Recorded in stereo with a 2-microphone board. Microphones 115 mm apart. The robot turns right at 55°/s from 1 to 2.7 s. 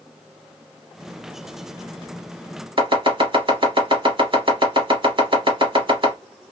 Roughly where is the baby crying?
I don't hear a baby crying.